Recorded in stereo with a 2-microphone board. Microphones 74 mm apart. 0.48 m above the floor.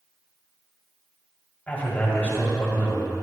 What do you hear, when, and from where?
1.7 s a man speaking: 20° left (ahead or behind), 3.5 m